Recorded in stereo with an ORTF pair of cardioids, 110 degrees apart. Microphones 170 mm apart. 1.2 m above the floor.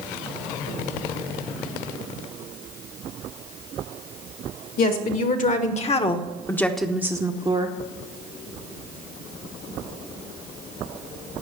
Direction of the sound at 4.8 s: 60° left.